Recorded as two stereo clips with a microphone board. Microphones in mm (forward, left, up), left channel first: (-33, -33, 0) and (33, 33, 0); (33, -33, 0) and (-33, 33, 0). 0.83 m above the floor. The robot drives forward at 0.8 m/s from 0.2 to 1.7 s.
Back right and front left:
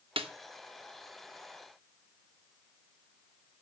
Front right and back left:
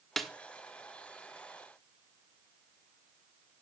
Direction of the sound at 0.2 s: 45° left.